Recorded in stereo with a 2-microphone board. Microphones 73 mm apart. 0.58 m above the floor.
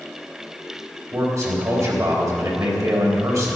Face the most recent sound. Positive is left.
turn(degrees=-50)  # may be behind; listen again after turning